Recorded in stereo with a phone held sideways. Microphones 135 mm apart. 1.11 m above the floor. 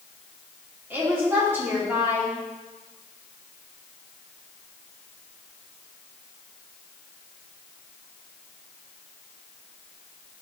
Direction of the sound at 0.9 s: 15° right (ahead or behind).